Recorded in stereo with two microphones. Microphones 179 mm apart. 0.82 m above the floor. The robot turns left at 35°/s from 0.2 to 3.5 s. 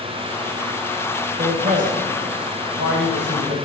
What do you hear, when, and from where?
1.4 s a man speaking: 35° right (ahead or behind), 4 m; by 3.5 s 70° right (ahead or behind), 4 m